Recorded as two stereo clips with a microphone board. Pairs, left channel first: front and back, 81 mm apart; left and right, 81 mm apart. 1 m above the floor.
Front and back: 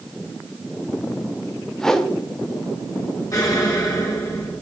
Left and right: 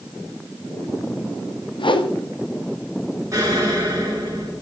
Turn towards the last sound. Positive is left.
turn(degrees=-40)